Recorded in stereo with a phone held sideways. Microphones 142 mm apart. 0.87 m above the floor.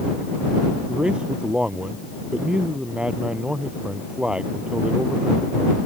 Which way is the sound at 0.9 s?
5° right (ahead or behind).